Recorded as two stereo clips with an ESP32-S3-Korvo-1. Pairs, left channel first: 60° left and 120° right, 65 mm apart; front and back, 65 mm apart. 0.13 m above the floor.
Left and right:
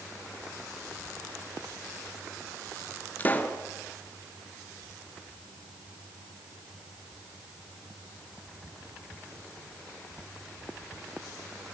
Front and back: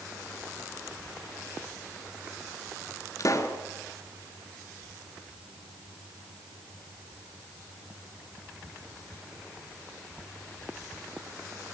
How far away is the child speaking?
No child speaking in this recording.